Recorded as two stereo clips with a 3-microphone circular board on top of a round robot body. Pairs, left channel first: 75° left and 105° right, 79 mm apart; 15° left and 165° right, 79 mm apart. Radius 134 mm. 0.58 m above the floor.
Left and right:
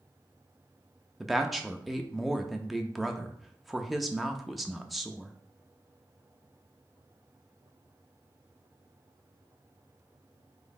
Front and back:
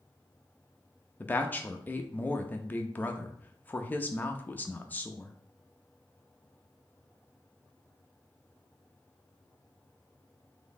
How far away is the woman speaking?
About 0.7 m.